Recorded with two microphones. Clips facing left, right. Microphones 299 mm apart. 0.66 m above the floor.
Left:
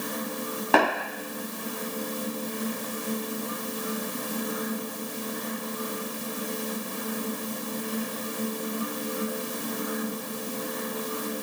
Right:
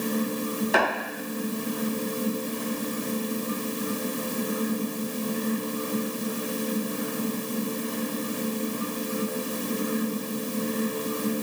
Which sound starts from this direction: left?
Tapping, at 0.7 s.